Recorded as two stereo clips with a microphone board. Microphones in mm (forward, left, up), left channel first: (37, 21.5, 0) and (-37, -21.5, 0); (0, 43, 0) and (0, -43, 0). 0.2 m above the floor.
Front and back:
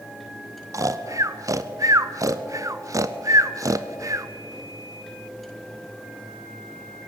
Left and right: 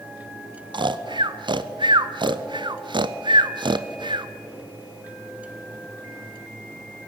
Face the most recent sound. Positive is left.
turn(degrees=-105)